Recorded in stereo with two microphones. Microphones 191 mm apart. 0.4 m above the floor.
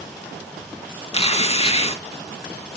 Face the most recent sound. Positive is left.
turn(degrees=30)  # may be behind; listen again after turning